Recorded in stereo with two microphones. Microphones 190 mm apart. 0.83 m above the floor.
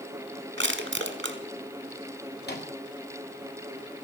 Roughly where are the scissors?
I don't hear scissors.